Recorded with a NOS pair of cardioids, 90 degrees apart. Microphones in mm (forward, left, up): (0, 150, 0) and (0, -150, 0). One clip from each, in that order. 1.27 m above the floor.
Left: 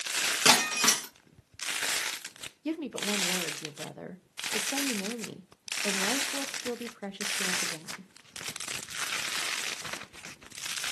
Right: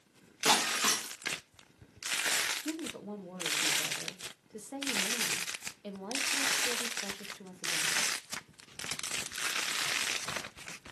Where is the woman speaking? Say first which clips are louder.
Left 7 dB; 30° left, 0.5 m.